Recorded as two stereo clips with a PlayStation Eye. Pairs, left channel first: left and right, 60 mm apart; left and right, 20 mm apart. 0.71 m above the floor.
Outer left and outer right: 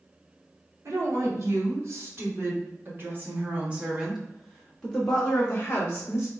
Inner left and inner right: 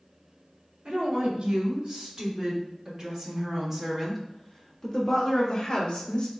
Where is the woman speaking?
60° right (ahead or behind), 2.5 m; by 6.3 s 35° left (ahead or behind), 1.6 m.